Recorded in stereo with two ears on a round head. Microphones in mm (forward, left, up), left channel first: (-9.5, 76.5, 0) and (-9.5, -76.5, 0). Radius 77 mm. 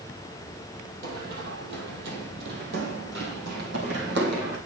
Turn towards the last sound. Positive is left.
turn(degrees=-65)  # may be behind; listen again after turning